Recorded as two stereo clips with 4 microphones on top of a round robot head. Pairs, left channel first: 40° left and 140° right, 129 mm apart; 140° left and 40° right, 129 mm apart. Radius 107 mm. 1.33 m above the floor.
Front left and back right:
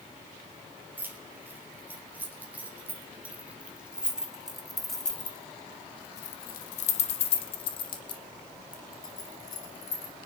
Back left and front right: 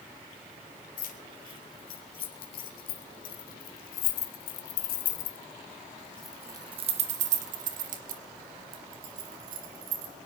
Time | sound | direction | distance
1.0 | keys jangling | 145° left | 2.5 m